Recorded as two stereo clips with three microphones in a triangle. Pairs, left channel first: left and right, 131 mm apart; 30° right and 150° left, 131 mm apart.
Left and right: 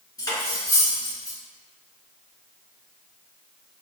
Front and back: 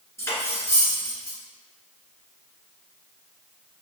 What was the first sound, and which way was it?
Cutlery clinking, 35° left.